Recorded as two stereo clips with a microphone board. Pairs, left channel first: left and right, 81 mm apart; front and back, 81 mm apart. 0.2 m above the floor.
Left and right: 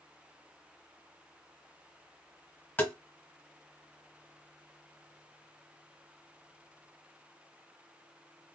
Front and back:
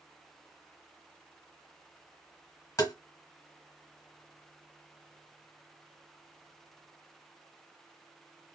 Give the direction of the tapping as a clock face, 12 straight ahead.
11 o'clock.